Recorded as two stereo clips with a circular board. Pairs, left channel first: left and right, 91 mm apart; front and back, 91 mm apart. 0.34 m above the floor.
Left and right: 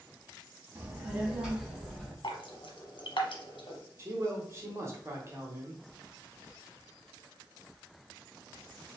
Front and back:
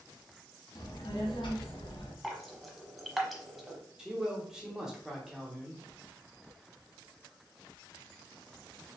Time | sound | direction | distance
0.8 | a child speaking | 25° right | 1.2 m
2.2 | dripping | 90° left | 1.0 m
4.0 | a man speaking | 105° right | 1.1 m